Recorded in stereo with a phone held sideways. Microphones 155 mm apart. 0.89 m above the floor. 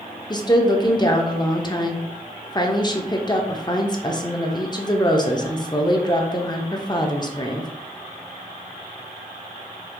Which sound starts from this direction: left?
A woman speaking, at 0.3 s.